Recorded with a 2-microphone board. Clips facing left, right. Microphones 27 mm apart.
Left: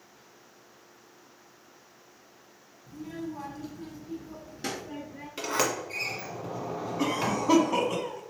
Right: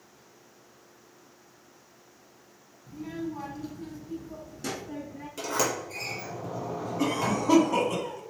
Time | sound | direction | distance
2.9 | a child speaking | 35° right (ahead or behind) | 1.1 m
5.4 | a sliding door | 35° left (ahead or behind) | 1.1 m
7.0 | a cough | 15° left (ahead or behind) | 1.0 m